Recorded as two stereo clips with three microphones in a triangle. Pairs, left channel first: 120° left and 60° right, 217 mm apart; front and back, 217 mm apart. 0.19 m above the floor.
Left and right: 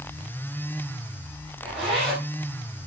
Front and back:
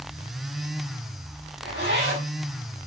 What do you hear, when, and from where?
1.6 s a zipper: 150° right, 7.5 m